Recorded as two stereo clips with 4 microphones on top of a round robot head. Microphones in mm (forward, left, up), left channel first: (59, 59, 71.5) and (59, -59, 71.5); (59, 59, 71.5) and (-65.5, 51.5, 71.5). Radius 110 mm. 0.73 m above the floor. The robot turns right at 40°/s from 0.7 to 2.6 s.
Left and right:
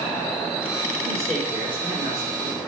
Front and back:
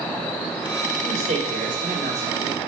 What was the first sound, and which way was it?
A man speaking, 165° left.